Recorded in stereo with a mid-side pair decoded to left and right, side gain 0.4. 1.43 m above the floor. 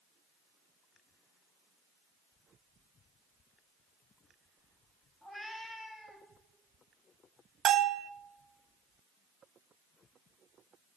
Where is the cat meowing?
10° right, 3.5 m; by 6.3 s straight ahead, 4.5 m.